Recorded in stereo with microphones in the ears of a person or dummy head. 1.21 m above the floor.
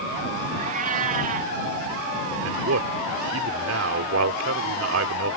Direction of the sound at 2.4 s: 75° right (ahead or behind).